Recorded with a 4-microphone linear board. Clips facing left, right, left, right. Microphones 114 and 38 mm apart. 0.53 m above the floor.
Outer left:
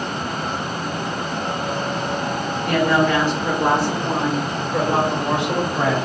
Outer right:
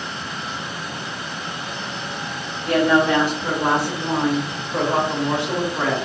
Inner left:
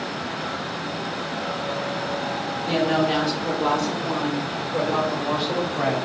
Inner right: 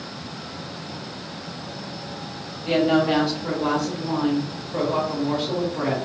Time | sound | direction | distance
2.6 | a woman speaking | 25° right (ahead or behind) | 1.8 m